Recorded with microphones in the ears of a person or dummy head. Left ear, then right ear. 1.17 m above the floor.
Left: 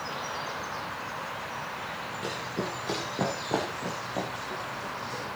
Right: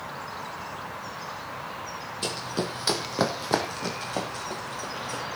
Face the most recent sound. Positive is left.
turn(degrees=-55)  # may be behind; listen again after turning